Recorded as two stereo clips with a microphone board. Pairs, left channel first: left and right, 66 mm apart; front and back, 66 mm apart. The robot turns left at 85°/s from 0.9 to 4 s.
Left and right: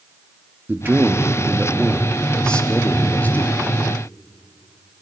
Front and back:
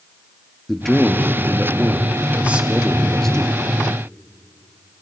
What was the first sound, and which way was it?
A man speaking, 80° right.